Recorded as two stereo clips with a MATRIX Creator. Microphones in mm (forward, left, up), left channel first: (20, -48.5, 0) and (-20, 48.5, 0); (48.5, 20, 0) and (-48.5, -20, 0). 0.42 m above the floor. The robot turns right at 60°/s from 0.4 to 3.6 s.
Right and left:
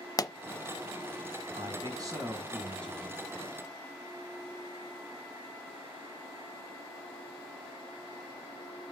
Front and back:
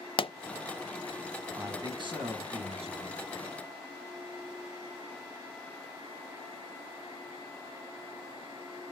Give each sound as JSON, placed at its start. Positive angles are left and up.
{"t": 0.2, "sound": "a pop", "azimuth_deg": -15, "distance_m": 0.6}
{"t": 1.6, "sound": "a man speaking", "azimuth_deg": 135, "distance_m": 4.5}